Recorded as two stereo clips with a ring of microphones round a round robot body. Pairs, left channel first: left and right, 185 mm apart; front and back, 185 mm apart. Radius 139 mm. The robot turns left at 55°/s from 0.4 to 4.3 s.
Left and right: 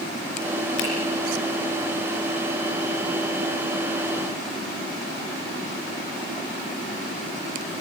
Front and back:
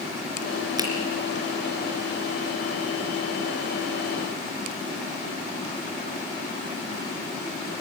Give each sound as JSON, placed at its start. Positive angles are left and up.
{"t": 0.8, "sound": "a finger snap", "azimuth_deg": 110, "distance_m": 4.0}